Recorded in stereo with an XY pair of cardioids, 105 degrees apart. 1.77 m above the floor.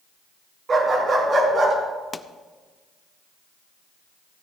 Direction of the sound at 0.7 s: 45° right.